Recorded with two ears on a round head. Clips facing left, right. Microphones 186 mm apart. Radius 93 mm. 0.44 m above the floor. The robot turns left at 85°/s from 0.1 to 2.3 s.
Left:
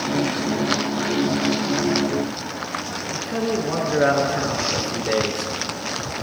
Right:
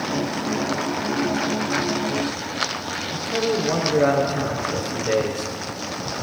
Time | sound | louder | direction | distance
3.1 | a man speaking | right 1 dB | 10° left (ahead or behind) | 5 m